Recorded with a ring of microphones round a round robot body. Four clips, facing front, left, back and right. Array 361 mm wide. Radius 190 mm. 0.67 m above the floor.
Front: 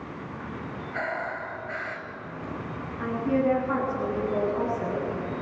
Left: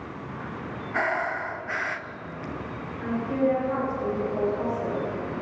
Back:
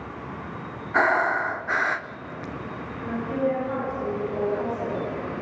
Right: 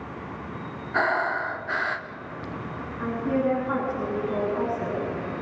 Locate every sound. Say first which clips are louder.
0.9 s breathing: right 3 dB, back 11 dB; 165° right, 0.7 m
3.0 s a woman speaking: even, front 1 dB; 55° right, 10 m